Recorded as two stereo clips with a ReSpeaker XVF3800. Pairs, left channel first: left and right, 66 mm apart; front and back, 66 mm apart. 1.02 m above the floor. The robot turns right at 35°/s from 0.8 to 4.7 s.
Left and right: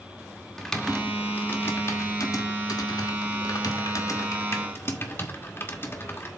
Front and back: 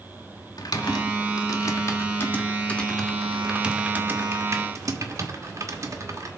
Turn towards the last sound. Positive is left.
turn(degrees=140)